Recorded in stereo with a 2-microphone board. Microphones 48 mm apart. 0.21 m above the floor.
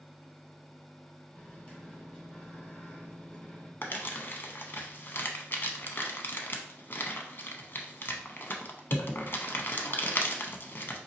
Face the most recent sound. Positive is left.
turn(degrees=45)  # may be behind; listen again after turning